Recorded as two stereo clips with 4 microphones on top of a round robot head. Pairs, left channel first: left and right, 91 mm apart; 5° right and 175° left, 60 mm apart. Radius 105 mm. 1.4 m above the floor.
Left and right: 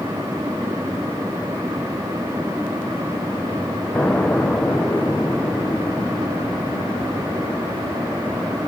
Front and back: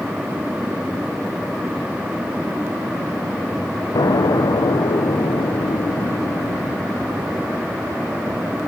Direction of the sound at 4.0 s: 10° left.